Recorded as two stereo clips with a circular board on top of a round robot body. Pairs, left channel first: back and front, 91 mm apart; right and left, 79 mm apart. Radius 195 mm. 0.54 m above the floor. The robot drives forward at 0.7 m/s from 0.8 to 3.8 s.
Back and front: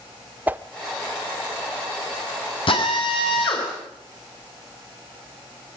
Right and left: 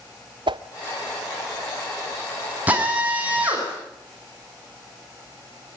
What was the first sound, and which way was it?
A whoosh, 75° left.